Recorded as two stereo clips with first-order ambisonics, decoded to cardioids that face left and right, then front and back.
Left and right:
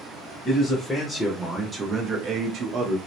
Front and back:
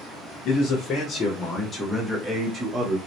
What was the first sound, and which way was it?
A man speaking, 30° left.